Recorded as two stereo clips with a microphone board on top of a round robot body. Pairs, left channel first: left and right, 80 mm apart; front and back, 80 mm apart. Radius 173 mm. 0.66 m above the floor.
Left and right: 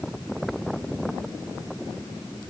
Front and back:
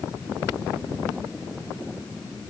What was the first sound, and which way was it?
Only background noise.